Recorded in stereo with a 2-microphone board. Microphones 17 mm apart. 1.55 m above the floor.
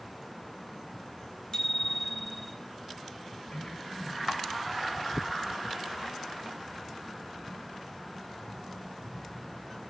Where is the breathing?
80° left, 9 m.